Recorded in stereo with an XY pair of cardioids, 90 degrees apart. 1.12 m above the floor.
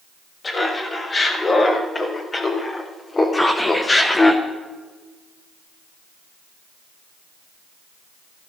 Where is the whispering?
10° left, 1.1 m.